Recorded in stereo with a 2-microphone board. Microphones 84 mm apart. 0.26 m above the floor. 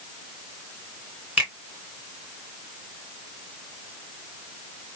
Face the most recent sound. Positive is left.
turn(degrees=-15)  # may be behind; listen again after turning